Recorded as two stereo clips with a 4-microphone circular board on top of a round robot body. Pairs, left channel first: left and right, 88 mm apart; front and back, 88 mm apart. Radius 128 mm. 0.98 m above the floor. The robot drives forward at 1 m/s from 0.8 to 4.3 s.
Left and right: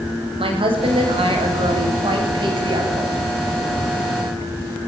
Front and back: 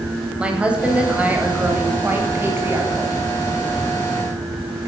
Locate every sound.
0.4 s a woman speaking: 100° right, 7.5 m; by 3.1 s 115° right, 8 m